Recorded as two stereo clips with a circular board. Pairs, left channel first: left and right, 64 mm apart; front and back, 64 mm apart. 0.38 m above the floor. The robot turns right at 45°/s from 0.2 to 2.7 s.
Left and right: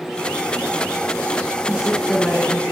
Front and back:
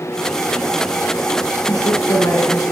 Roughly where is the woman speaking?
Ahead.